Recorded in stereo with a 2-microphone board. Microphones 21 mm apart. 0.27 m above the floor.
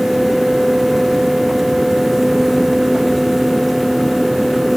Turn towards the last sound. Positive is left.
No sound to turn to.